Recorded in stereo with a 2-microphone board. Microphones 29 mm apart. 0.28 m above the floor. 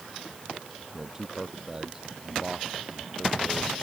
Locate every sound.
0.9 s a man speaking: 15° right (ahead or behind); by 3.7 s 25° right (ahead or behind)